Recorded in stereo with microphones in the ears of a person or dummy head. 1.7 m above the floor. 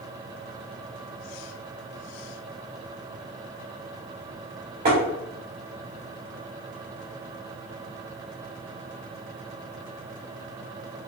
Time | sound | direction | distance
4.8 | tapping | 50° right (ahead or behind) | 1.2 m